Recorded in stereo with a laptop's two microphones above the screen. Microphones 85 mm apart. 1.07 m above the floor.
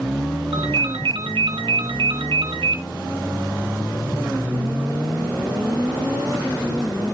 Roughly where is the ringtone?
Right.